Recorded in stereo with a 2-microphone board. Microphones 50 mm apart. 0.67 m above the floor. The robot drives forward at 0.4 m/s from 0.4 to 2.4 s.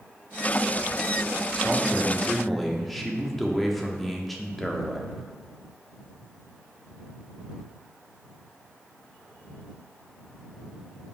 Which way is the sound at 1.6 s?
5° left (ahead or behind).